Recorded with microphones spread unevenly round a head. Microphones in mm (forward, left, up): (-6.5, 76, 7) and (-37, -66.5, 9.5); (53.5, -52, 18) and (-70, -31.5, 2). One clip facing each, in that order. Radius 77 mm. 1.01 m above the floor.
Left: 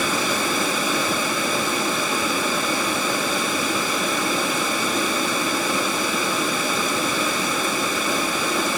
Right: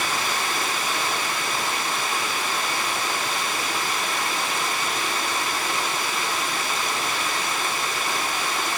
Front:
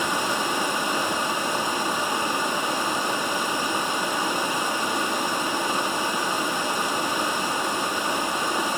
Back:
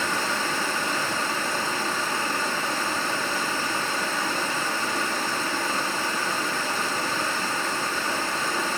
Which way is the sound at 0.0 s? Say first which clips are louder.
Left 4 dB, front 2 dB; 70° left.